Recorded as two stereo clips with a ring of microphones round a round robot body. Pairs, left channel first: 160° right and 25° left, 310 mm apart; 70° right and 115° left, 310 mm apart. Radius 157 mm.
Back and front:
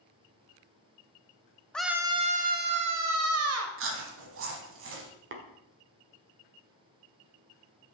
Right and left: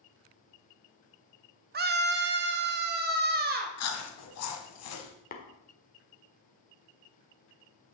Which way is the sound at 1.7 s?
120° left.